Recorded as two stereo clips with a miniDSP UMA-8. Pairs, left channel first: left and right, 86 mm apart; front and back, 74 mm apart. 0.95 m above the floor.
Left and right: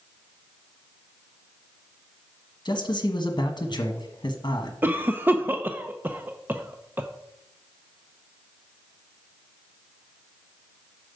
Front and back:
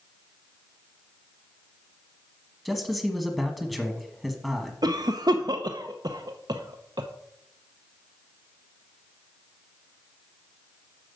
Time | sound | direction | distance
2.6 | a man speaking | 90° left | 1.3 m
4.8 | a cough | 155° right | 0.7 m